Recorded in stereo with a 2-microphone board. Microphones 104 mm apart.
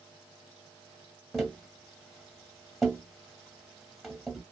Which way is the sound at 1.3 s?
Centre (ahead or behind).